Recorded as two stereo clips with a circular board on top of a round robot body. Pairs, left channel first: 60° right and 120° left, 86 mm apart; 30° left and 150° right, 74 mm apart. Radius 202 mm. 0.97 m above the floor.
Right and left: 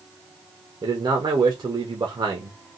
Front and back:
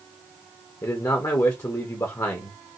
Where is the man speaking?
80° left, 1.3 m.